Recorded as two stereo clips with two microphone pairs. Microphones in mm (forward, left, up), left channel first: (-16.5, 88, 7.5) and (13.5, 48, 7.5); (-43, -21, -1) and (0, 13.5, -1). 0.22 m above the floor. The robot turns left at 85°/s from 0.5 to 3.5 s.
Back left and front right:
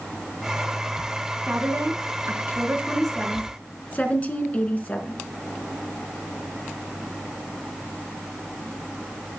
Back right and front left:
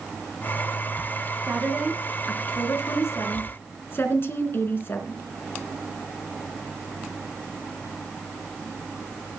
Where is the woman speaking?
10° right, 3 m; by 5.2 s straight behind, 3 m.